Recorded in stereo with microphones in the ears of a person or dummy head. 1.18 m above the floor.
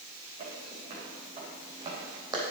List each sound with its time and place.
0.4 s footsteps: 40° right (ahead or behind), 3.5 m; by 2.4 s 20° right (ahead or behind), 2.5 m